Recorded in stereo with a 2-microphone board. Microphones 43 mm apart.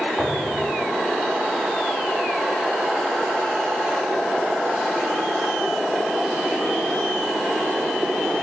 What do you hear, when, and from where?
0.2 s a thud: 30° right (ahead or behind), 4.5 m